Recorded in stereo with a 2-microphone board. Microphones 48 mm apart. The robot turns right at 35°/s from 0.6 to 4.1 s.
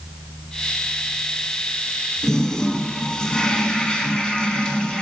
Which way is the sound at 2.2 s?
15° left (ahead or behind).